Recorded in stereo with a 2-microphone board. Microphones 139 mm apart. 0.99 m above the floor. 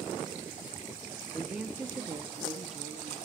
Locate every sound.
1.3 s a woman speaking: 10° left (ahead or behind), 0.6 m; by 3.2 s 55° right (ahead or behind), 1.3 m